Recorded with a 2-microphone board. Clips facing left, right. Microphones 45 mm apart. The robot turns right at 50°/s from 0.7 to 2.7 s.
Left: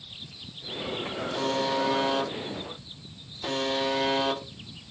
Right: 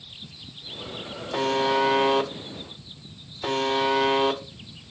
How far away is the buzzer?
About 0.6 m.